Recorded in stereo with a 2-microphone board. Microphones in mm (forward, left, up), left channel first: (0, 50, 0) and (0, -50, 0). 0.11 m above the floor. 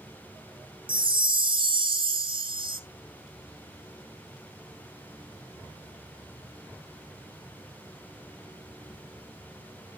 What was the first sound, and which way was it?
A chime, 55° right (ahead or behind).